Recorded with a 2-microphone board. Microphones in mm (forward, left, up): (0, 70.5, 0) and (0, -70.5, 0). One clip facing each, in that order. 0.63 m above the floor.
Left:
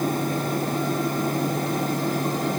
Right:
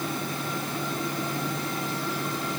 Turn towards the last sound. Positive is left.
No sound to turn to.